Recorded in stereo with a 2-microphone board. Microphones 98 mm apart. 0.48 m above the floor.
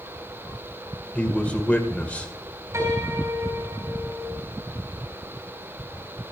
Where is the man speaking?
15° left (ahead or behind), 2.0 m.